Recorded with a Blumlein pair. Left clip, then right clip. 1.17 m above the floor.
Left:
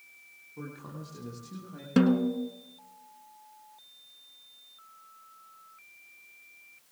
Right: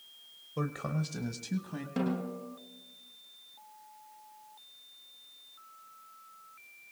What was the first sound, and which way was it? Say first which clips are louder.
A man speaking: right 8 dB; 55° right.